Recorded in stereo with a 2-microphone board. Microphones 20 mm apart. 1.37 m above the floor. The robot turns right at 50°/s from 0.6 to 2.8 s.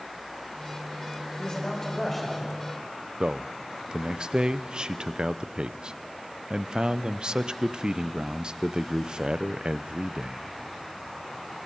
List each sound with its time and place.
1.4 s a man speaking: 130° left, 4.5 m; by 2.7 s 165° right, 4.5 m
3.2 s a man speaking: 50° right (ahead or behind), 0.6 m